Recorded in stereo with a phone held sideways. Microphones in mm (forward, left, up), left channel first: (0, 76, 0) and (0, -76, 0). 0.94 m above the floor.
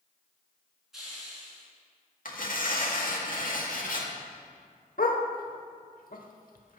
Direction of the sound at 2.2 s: 65° left (ahead or behind).